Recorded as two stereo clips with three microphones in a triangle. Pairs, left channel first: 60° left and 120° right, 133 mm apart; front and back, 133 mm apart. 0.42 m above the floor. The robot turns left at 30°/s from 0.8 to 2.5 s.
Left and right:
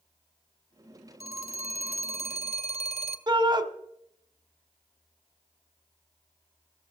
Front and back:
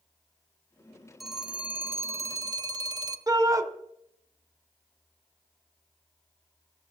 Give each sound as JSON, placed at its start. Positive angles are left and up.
{"t": 1.2, "sound": "a phone ringing", "azimuth_deg": -90, "distance_m": 1.3}
{"t": 3.3, "sound": "a shout", "azimuth_deg": -135, "distance_m": 1.5}